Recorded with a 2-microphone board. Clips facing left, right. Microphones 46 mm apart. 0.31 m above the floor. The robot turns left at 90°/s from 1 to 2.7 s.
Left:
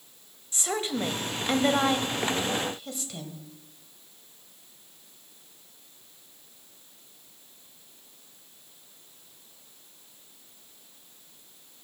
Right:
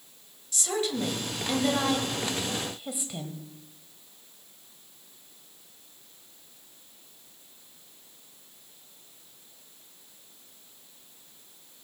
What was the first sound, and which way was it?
A woman speaking, 30° left (ahead or behind).